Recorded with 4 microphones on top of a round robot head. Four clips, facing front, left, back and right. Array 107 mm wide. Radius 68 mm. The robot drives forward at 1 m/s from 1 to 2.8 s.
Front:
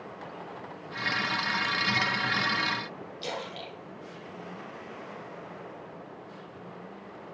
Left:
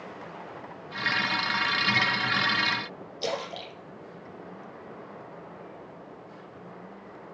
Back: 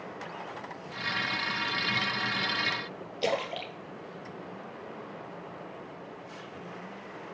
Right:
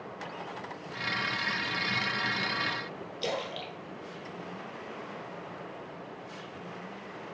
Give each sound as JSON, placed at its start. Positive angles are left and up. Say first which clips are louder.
{"t": 3.2, "sound": "a splash", "louder": "left 2 dB, back 7 dB", "azimuth_deg": 165, "distance_m": 2.5}